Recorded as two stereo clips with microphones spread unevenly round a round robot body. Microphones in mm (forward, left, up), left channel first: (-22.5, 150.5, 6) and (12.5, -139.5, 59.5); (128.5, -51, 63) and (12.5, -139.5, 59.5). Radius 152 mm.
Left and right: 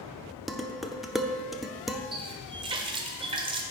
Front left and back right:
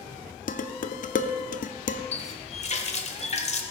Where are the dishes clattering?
10° left, 0.7 m.